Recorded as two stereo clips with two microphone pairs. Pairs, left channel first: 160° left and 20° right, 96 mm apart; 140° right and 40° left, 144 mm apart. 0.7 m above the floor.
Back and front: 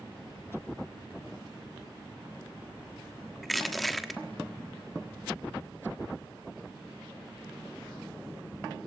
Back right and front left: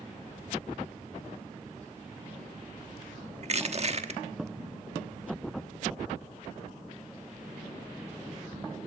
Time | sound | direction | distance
3.4 | crushing | 70° left | 1.2 m